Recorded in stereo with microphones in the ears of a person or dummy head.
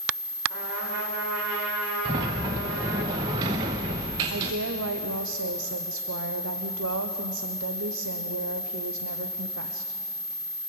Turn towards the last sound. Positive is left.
turn(degrees=-75)  # may be behind; listen again after turning